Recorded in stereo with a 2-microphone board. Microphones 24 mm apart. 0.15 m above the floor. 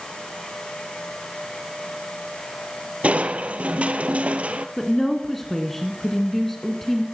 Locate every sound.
3.0 s crushing: 70° right (ahead or behind), 0.9 m
4.8 s a woman speaking: 10° left (ahead or behind), 1.3 m